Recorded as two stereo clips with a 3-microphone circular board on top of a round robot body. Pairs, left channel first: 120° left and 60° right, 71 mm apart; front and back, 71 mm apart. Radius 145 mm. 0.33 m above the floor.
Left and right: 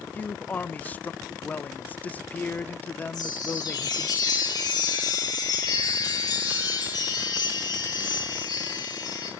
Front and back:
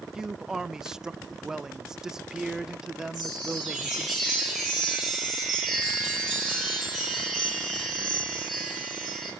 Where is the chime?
90° left, 10 m.